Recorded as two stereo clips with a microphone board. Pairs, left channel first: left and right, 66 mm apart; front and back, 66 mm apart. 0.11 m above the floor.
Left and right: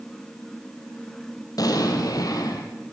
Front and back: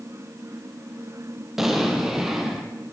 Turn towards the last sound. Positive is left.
turn(degrees=95)